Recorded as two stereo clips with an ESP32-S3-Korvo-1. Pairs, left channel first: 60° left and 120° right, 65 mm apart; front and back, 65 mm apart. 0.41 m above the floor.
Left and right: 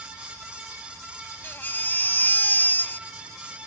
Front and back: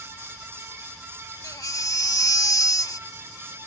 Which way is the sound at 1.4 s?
5° left.